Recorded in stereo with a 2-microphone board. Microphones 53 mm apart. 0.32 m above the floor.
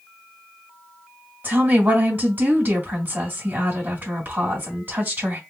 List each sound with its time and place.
1.4 s a woman speaking: 40° right (ahead or behind), 2 m